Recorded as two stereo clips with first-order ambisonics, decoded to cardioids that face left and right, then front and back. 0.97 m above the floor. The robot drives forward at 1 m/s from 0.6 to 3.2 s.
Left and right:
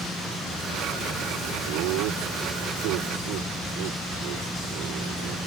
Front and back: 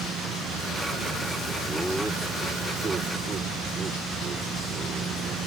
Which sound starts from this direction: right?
Laughter, at 1.7 s.